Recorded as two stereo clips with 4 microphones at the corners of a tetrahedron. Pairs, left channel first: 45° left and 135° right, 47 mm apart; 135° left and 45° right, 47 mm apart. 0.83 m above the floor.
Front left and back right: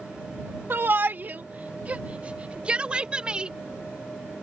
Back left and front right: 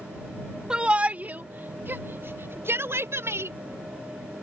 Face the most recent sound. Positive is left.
turn(degrees=-65)